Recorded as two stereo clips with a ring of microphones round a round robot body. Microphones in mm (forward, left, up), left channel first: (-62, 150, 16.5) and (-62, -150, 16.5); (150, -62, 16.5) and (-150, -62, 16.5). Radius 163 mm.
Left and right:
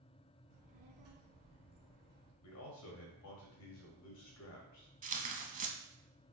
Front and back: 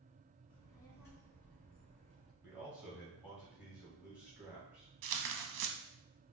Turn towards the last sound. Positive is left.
turn(degrees=-155)